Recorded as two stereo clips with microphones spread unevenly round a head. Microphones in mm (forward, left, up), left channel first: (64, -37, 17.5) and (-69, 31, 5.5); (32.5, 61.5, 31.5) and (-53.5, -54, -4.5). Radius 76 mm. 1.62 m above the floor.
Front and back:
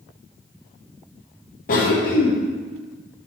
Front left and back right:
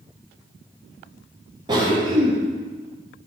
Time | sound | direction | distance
1.7 | a cough | 65° right | 1.1 m